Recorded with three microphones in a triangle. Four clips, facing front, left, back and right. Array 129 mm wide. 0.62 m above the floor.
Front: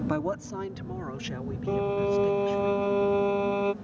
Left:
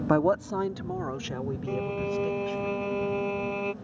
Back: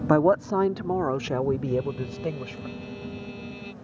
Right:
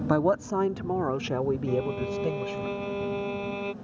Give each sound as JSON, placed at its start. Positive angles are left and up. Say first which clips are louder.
{"t": 0.1, "sound": "a woman speaking", "louder": "even, back 15 dB", "azimuth_deg": 165}
{"t": 1.7, "sound": "a violin", "louder": "right 2 dB, front 3 dB", "azimuth_deg": 5}